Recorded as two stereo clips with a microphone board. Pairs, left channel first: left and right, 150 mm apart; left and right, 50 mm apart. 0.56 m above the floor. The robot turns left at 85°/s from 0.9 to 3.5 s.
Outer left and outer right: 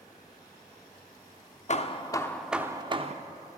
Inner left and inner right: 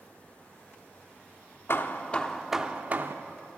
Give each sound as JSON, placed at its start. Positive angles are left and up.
{"t": 1.7, "sound": "hammering", "azimuth_deg": 65, "distance_m": 0.5}